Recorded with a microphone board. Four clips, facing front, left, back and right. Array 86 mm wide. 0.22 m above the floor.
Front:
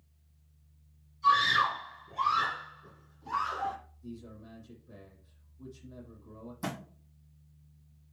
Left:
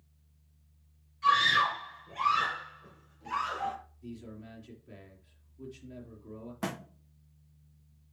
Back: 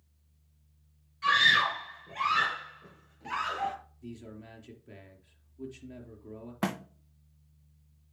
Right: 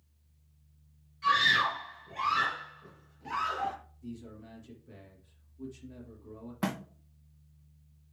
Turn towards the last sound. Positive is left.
turn(degrees=-170)